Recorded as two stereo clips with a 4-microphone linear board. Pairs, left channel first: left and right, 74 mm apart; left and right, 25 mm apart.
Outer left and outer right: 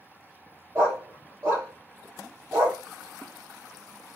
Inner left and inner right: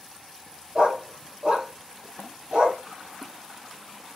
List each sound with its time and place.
0.8 s a dog barking: 35° right (ahead or behind), 2 m